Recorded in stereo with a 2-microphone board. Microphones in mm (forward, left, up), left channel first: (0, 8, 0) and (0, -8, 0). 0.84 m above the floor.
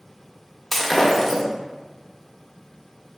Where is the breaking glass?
5° left (ahead or behind), 0.5 m.